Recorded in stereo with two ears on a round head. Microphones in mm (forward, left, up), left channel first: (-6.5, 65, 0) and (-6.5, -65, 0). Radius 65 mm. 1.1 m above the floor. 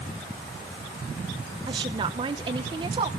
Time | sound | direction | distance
1.7 | a woman speaking | 30° right (ahead or behind) | 0.8 m